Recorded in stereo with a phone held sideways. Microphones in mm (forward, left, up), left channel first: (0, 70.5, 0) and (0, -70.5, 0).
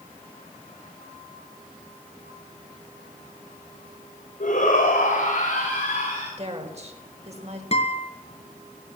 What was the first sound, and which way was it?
A shout, 65° left (ahead or behind).